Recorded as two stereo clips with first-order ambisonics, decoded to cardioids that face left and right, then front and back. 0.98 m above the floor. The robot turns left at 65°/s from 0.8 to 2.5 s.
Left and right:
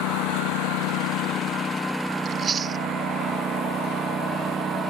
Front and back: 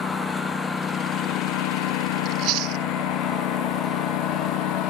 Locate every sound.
0.0 s a lawn mower: 70° left; by 4.9 s 20° right
2.2 s chewing: 140° right; by 2.9 s 160° right